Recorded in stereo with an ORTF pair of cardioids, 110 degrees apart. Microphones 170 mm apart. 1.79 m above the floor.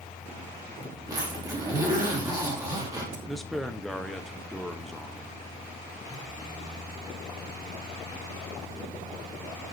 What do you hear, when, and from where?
0.0 s a fan: 15° left, 2.0 m
1.1 s a zipper: 20° right, 3.5 m
3.3 s a man speaking: straight ahead, 1.2 m